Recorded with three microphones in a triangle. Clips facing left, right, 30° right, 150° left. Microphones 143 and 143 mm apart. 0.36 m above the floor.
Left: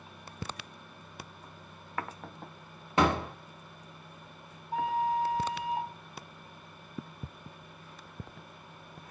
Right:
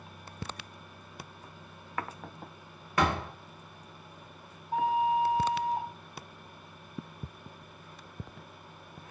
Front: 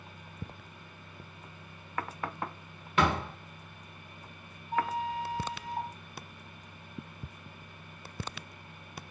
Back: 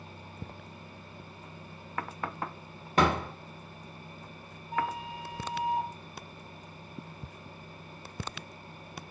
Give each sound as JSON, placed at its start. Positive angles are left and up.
{"t": 3.0, "sound": "a door slam", "azimuth_deg": 140, "distance_m": 0.6}
{"t": 4.7, "sound": "a flute", "azimuth_deg": -115, "distance_m": 1.5}